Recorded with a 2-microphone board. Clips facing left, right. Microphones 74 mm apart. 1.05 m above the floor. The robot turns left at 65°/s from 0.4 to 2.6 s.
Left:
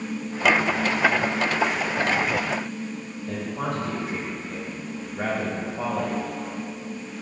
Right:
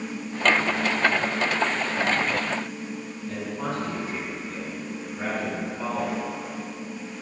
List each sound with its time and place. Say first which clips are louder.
3.3 s a man speaking: left 2 dB; 70° left (ahead or behind), 2.0 m